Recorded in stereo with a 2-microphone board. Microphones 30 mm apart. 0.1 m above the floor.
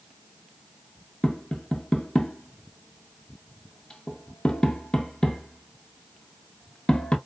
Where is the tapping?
25° left (ahead or behind), 0.8 m.